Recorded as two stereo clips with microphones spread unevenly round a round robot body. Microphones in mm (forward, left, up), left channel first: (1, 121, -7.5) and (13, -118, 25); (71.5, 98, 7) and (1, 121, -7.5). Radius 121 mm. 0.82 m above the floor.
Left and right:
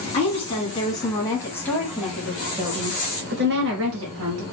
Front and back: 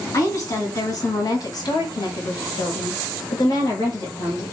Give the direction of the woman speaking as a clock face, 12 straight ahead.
11 o'clock.